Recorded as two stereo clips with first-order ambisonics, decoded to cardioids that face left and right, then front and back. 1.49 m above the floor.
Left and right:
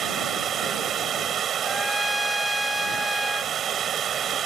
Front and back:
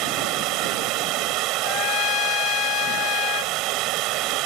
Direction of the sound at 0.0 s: 150° right.